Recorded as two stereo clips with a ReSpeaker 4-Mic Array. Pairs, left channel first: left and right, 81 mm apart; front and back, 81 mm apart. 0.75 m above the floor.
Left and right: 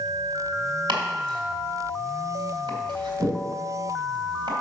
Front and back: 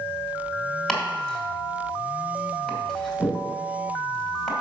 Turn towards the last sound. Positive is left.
turn(degrees=-90)